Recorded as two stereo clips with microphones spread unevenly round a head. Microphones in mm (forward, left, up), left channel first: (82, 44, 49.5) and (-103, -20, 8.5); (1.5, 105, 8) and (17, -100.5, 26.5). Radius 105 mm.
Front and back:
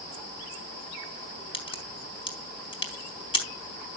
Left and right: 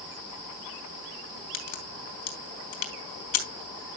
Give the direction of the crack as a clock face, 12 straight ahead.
9 o'clock.